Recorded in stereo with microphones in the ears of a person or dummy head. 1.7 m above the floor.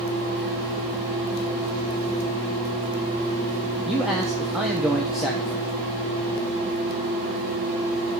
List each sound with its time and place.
3.9 s a man speaking: centre (ahead or behind), 0.9 m